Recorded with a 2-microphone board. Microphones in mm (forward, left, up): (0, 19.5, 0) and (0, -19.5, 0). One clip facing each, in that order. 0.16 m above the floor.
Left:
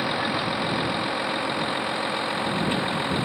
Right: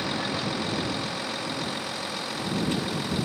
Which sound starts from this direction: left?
A vehicle, at 0.0 s.